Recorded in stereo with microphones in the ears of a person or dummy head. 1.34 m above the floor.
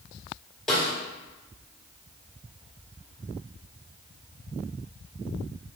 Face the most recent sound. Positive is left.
turn(degrees=5)  # may be behind; listen again after turning